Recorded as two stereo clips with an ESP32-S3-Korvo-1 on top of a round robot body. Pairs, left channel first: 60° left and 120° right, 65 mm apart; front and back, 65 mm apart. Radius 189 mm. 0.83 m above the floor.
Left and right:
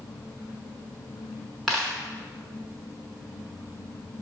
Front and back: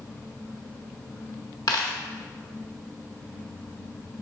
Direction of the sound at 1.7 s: 25° right.